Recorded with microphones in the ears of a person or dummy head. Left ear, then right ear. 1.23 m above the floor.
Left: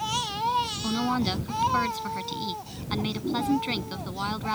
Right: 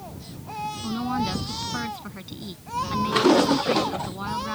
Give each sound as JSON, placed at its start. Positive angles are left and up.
{"t": 0.8, "sound": "a woman speaking", "side_deg": 15}